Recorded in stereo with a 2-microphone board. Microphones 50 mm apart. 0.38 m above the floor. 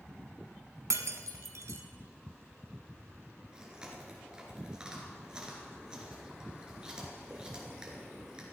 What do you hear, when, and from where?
0.9 s breaking glass: 75° right (ahead or behind), 1.2 m
3.5 s chewing: 15° right (ahead or behind), 4 m